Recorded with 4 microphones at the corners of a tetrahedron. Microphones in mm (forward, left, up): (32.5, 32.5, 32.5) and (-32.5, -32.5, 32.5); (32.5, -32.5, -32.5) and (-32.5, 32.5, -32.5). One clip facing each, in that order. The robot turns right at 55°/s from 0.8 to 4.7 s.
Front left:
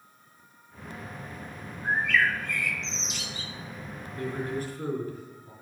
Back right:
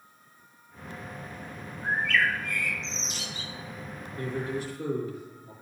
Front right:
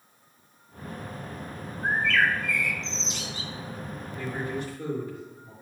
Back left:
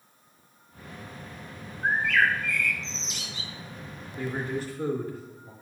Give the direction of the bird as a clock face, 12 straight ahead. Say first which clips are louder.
Front left 1 dB, even; 6 o'clock.